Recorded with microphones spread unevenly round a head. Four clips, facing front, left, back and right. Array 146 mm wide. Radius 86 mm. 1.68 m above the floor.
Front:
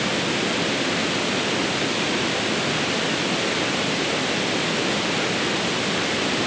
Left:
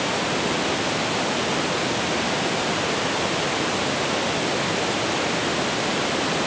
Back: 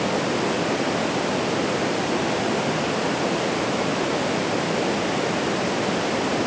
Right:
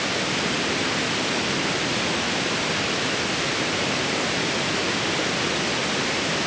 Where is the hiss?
I don't hear a hiss.